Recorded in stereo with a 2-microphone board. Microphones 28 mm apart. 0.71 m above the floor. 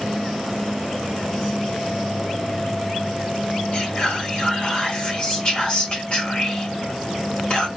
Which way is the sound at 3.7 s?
40° left (ahead or behind).